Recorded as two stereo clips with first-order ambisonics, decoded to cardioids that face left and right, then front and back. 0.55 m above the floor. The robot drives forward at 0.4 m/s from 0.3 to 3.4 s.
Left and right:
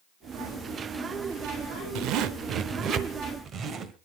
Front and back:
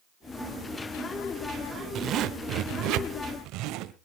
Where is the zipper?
125° right, 0.6 m; by 4.0 s 150° right, 1.1 m.